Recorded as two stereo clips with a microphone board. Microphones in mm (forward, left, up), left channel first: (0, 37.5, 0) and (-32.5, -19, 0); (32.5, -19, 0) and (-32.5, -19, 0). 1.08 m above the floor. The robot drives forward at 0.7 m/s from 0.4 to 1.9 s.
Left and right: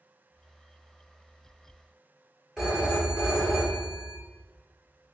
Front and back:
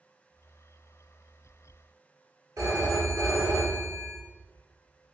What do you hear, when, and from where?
2.6 s a phone ringing: 160° left, 1.3 m